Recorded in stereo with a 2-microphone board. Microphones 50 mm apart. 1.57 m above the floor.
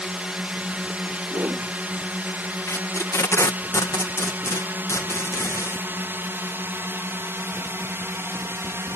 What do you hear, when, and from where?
0.0 s a drone: 25° right (ahead or behind); by 9.0 s 55° right (ahead or behind)
1.3 s a whoosh: 60° right (ahead or behind)
2.7 s tape being pulled: 70° left (ahead or behind)